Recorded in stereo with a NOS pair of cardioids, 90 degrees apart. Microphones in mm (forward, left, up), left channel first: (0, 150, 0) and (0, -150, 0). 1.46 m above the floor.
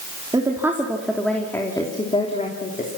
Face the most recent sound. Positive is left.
turn(degrees=25)